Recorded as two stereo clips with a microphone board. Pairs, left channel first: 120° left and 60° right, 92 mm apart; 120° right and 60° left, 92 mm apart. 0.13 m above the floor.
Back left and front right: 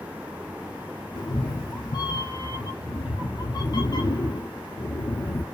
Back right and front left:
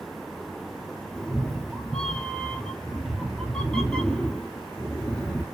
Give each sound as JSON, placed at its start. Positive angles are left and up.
{"t": 1.1, "sound": "a cat meowing", "azimuth_deg": 160, "distance_m": 0.6}